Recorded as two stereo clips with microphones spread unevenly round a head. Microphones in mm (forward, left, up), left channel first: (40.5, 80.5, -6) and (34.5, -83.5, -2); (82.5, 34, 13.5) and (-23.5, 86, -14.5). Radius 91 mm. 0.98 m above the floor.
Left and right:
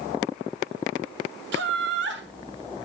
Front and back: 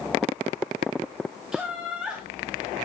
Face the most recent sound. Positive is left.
turn(degrees=-125)